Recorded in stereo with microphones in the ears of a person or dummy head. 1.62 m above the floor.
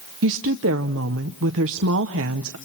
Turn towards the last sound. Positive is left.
turn(degrees=-65)  # may be behind; listen again after turning